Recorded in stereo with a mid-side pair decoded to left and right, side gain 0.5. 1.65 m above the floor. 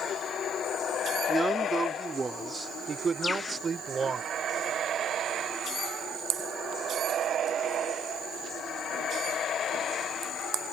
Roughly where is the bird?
Ahead left.